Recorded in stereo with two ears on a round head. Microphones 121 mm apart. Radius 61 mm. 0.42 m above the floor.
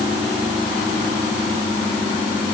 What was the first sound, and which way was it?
Only background noise.